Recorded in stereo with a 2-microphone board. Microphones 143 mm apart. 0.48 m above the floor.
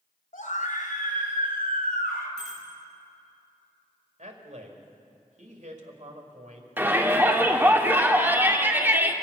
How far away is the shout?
About 1.2 m.